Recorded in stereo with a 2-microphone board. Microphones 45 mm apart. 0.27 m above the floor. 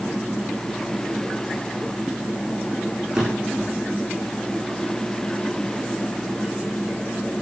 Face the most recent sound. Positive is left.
turn(degrees=-15)  # may be behind; listen again after turning